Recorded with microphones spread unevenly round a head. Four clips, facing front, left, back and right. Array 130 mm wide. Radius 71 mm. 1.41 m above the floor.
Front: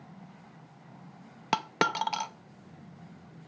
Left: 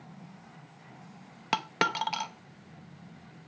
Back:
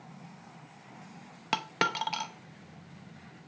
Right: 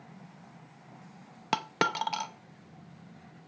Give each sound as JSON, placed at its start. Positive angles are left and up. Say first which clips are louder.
{"t": 1.5, "sound": "a dropped coin", "louder": "even, front 3 dB", "azimuth_deg": -55, "distance_m": 0.7}